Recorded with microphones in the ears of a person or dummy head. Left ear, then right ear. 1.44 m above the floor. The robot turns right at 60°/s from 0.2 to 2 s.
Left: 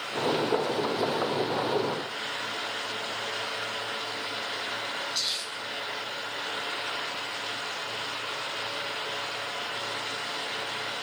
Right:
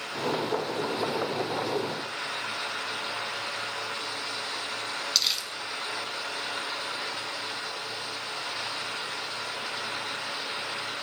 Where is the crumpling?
50° right (ahead or behind), 0.8 m.